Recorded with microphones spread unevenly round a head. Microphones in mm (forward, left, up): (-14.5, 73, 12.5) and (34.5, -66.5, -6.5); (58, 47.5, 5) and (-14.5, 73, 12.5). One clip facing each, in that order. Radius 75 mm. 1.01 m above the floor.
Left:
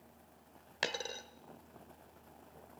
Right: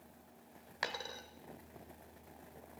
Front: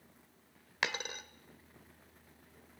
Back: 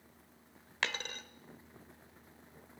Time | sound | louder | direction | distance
0.8 | a dropped coin | left 3 dB, front 1 dB | 60° left | 1.3 m